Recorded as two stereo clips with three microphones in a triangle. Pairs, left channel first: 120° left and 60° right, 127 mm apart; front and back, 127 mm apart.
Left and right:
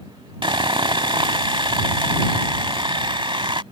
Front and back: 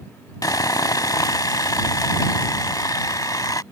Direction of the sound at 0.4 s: 45° right.